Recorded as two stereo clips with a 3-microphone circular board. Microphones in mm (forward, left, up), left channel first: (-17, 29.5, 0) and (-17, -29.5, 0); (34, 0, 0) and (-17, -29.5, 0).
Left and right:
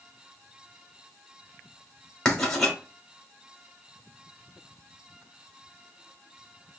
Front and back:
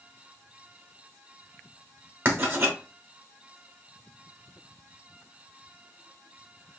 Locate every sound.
2.2 s writing: 170° left, 1.3 m